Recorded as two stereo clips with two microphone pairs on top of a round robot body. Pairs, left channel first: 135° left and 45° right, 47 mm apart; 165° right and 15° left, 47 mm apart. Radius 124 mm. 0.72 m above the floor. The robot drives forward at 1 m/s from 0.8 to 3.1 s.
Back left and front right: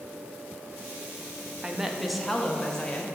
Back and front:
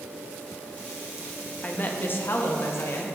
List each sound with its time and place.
1.6 s a woman speaking: 115° right, 1.4 m; by 3.0 s 155° right, 2.5 m